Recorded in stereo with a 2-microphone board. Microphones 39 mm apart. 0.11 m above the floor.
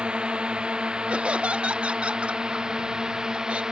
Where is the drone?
25° right (ahead or behind); by 3.7 s 20° right (ahead or behind).